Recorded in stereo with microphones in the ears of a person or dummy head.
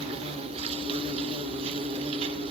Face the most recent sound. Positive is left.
turn(degrees=-35)  # may be behind; listen again after turning